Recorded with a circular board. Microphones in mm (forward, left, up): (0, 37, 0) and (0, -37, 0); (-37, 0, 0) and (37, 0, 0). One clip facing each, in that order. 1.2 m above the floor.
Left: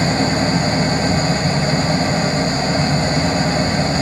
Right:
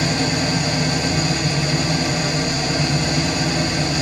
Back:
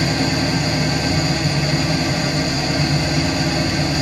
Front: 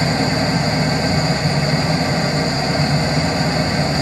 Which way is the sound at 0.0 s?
50° left.